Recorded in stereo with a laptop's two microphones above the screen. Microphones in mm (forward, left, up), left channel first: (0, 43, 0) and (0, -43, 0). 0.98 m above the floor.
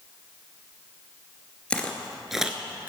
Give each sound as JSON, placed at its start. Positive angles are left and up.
{"t": 1.7, "sound": "footsteps", "side_deg": 15, "distance_m": 1.1}